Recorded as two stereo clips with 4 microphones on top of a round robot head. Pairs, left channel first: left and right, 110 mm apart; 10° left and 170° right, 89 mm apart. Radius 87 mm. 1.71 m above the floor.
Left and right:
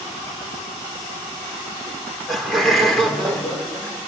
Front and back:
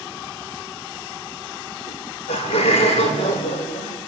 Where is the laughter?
5° right, 6 m; by 4.0 s 10° left, 6.5 m.